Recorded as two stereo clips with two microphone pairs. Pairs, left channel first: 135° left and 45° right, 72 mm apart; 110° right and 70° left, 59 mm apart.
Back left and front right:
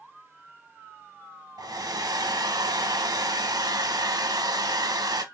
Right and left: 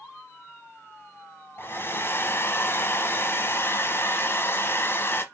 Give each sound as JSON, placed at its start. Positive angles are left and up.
{"t": 1.6, "sound": "a hair dryer", "azimuth_deg": -70, "distance_m": 0.9}